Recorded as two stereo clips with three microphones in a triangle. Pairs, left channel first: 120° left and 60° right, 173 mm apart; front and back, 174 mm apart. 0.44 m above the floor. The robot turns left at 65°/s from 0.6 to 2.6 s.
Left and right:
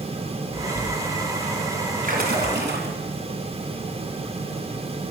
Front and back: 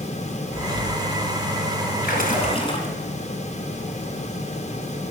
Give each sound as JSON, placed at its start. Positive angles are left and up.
{"t": 2.0, "sound": "a splash", "azimuth_deg": -25, "distance_m": 3.0}